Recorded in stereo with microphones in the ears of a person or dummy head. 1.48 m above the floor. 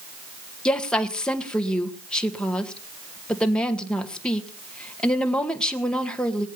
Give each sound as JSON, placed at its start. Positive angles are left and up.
{"t": 0.7, "sound": "a woman speaking", "side_deg": 5, "distance_m": 1.9}